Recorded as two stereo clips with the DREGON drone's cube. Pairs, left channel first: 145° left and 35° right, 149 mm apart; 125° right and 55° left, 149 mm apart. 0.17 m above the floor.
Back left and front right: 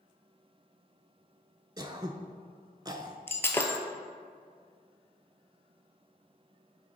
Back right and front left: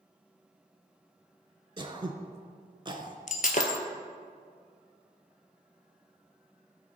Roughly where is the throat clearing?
Ahead.